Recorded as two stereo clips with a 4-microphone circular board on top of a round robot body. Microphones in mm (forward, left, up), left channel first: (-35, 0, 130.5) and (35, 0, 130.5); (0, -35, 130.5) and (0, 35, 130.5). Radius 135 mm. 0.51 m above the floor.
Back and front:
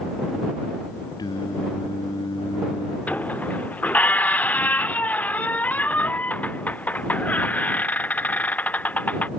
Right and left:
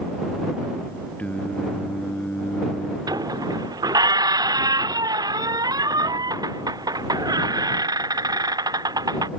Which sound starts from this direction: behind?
Singing, at 1.2 s.